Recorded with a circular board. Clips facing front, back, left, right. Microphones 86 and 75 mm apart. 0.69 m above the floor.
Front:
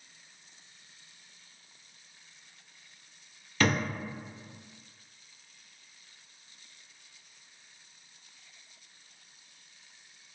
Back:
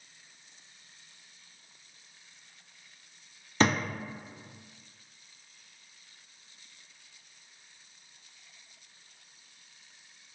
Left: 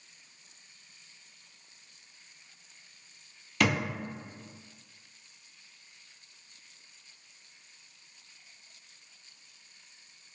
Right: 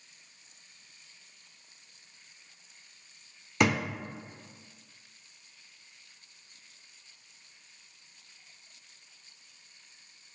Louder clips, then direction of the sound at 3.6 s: Back 2 dB, right 1 dB; 135° right.